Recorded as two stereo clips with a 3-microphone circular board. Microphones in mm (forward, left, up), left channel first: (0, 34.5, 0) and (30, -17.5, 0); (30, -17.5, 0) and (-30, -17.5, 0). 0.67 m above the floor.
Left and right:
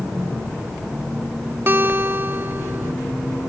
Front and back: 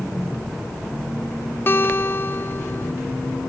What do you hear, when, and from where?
1.7 s a guitar: 30° right